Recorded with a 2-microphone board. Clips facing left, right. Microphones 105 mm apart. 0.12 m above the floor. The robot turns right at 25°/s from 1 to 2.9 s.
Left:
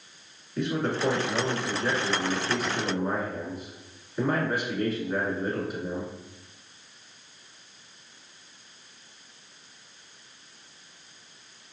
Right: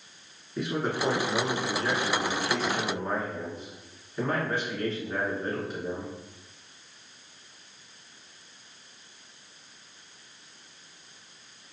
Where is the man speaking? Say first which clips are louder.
Left 2 dB; 10° right (ahead or behind), 1.2 m; by 6.1 s 10° left (ahead or behind), 1.2 m.